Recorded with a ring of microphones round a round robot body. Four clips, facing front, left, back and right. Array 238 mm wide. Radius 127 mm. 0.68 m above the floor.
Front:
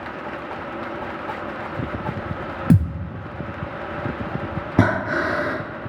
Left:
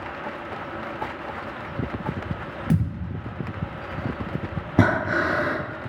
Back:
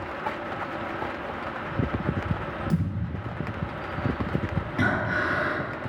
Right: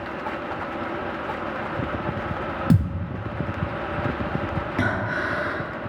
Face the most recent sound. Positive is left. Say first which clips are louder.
# left 6 dB, front 6 dB
turn(degrees=35)